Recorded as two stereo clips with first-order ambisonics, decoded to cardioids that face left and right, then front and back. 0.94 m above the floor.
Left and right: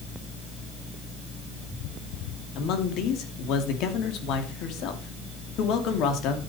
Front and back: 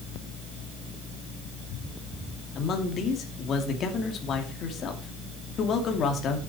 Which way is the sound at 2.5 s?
55° left.